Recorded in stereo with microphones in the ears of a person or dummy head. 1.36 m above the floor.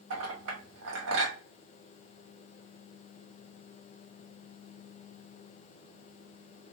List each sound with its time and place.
0.1 s a clink: 70° right (ahead or behind), 1.5 m